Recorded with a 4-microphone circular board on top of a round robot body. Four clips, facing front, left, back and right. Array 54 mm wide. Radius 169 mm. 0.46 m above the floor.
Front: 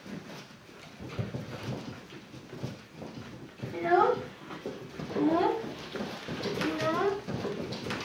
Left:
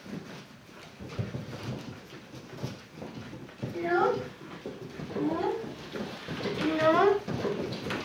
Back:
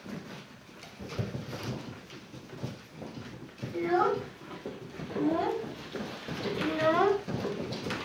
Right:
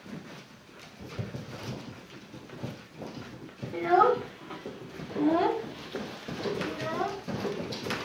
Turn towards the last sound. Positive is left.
turn(degrees=115)